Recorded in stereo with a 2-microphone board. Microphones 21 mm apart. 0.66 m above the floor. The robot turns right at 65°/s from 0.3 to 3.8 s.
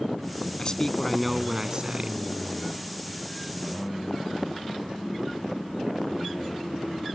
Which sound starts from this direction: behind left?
A man speaking, at 0.6 s.